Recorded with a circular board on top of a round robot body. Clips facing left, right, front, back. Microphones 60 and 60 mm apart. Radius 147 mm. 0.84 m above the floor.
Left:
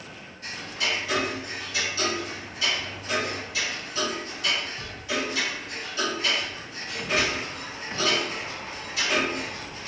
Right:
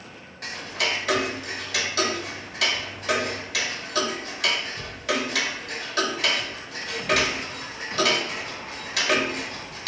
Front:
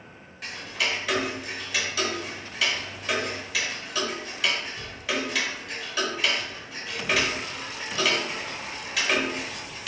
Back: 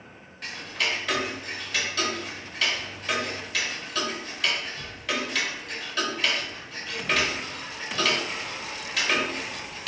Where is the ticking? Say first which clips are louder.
Right 2 dB, even; 85° right, 0.8 m.